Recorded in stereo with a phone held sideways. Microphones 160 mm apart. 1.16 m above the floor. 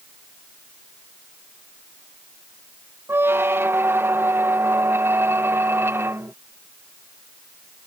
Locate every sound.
3.1 s a squeak: 15° right (ahead or behind)